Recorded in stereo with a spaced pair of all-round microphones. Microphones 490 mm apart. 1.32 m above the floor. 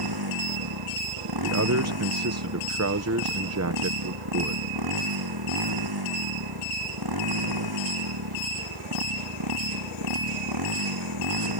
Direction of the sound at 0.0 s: 50° right (ahead or behind).